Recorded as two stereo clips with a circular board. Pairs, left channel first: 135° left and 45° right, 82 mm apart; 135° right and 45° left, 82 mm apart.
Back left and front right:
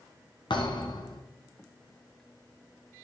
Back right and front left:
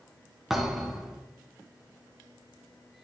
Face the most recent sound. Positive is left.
turn(degrees=130)